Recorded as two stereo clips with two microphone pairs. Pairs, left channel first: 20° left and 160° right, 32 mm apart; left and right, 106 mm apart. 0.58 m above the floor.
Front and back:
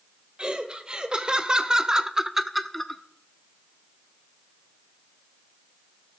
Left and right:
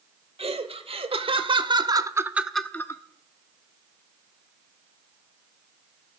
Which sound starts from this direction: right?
Laughter, at 0.4 s.